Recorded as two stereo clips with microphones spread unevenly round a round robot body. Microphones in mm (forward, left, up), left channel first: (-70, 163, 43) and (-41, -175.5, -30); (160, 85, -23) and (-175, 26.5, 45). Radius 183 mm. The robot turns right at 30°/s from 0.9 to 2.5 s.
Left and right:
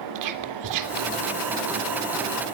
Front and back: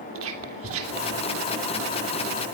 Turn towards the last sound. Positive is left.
turn(degrees=-65)